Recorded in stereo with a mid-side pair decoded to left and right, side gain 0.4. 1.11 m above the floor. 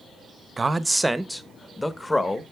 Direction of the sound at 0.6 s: 30° right.